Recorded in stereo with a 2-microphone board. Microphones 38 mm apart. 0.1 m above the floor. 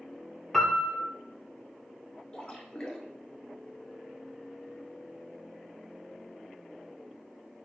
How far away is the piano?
About 0.7 m.